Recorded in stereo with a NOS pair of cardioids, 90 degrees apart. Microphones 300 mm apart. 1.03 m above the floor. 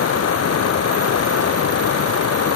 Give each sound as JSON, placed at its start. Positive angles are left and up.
{"t": 0.0, "sound": "running water", "azimuth_deg": 55}